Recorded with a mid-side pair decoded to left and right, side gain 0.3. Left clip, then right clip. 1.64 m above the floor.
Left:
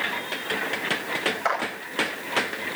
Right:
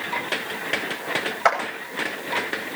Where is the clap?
65° right, 9.5 m.